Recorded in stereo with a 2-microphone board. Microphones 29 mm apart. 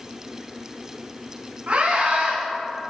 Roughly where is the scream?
Right.